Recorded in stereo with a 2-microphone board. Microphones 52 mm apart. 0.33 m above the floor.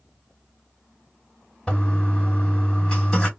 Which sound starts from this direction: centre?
A toilet flushing, at 1.7 s.